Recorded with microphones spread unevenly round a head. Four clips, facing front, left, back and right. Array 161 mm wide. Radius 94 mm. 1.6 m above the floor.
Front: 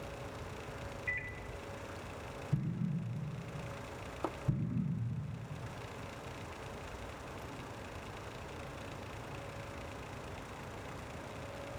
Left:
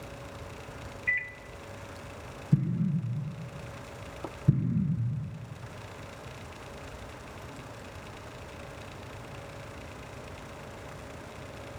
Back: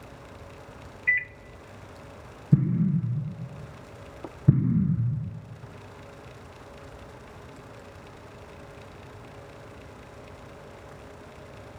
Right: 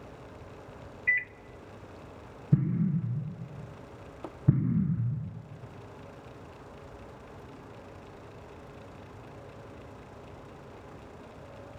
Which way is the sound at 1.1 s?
Straight behind.